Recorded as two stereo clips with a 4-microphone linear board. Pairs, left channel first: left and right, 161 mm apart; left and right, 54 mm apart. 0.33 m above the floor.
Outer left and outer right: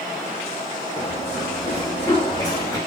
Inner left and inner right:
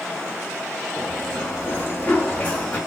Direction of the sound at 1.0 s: 20° left (ahead or behind).